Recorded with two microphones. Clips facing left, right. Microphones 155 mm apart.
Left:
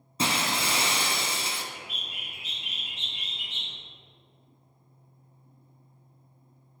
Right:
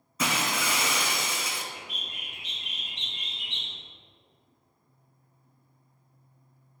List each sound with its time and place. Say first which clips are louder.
0.2 s breaking glass: left 1 dB; 30° left (ahead or behind), 1.0 m
1.7 s a bird: even; 5° left (ahead or behind), 1.4 m